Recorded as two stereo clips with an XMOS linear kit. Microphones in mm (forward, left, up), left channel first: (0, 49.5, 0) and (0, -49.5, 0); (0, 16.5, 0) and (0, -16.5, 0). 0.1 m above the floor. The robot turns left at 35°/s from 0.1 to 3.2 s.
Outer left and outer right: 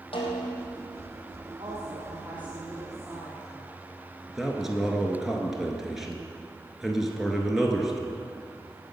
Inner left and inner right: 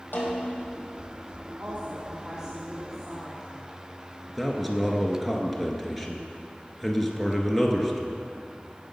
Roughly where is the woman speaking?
Right.